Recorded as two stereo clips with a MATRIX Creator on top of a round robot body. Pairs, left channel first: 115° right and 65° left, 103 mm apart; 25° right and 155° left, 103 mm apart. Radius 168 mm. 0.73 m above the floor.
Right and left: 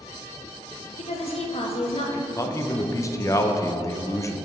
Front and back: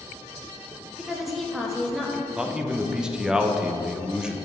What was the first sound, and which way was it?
A woman speaking, 115° right.